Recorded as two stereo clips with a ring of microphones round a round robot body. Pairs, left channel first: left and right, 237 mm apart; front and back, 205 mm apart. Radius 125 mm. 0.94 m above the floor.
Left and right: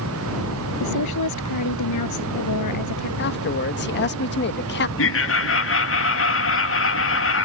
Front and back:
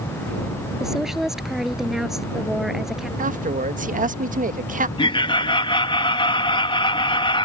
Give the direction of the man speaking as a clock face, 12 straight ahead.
8 o'clock.